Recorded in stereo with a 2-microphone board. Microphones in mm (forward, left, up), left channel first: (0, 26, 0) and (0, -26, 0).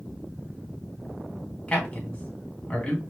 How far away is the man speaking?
About 2 m.